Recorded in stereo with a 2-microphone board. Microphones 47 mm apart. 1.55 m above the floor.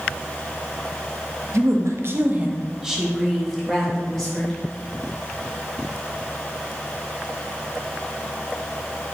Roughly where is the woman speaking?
Right.